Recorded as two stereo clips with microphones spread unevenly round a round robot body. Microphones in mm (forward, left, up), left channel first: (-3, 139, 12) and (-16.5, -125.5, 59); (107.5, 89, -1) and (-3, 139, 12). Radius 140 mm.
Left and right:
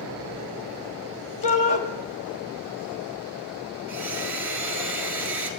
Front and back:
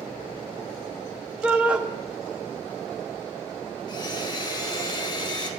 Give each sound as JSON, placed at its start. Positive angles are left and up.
{"t": 1.4, "sound": "a shout", "azimuth_deg": 70, "distance_m": 1.3}
{"t": 3.9, "sound": "a blender", "azimuth_deg": 0, "distance_m": 1.6}